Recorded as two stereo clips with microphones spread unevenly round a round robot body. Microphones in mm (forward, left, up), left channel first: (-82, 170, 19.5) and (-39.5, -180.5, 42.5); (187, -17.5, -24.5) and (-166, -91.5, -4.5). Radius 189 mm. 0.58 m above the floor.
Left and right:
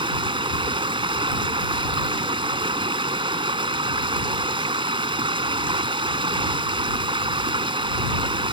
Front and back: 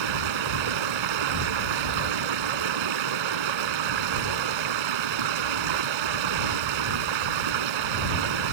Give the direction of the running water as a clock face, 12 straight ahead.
5 o'clock.